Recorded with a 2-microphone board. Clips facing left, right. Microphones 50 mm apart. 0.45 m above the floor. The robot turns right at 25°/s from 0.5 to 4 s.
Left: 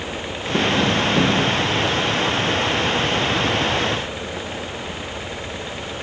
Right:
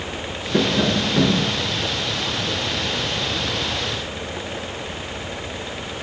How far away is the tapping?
About 3.5 m.